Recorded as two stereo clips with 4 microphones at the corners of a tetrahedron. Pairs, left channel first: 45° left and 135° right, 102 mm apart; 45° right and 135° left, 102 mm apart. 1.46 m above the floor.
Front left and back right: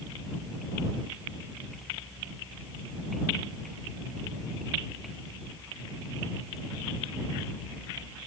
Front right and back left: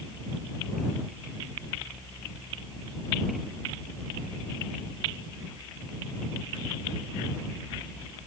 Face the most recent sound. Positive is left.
No sound to turn to.